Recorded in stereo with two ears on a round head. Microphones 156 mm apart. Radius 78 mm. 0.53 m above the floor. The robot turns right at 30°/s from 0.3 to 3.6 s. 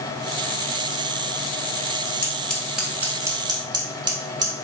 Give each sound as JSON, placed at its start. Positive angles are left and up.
{"t": 2.2, "sound": "scissors", "side_deg": 15, "distance_m": 0.9}